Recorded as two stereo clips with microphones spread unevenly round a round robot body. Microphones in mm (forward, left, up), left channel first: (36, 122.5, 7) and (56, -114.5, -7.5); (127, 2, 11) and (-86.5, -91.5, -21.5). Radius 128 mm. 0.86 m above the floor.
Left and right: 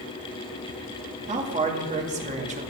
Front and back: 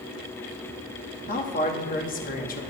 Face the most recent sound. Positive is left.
turn(degrees=-30)